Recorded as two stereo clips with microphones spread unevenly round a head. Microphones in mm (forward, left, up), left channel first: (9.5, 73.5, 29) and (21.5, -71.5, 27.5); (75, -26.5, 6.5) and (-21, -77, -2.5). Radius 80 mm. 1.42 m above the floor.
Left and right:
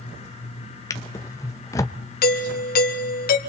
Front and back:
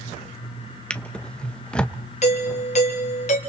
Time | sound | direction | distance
0.9 | a drawer | 75° left | 0.6 m
2.2 | a doorbell | 75° left | 1.4 m